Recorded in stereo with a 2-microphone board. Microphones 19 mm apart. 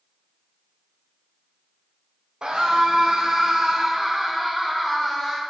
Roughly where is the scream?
Right.